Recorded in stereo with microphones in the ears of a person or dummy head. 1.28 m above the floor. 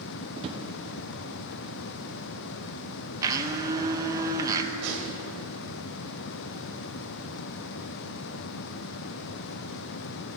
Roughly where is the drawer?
Right.